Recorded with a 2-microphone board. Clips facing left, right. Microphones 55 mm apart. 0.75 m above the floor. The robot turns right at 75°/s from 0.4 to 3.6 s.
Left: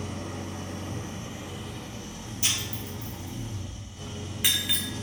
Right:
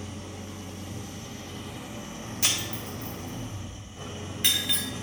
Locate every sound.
0.0 s an engine running: 85° left, 0.7 m; by 5.0 s 35° right, 0.7 m
2.4 s breaking glass: 80° right, 1.0 m; by 4.9 s 10° left (ahead or behind), 1.0 m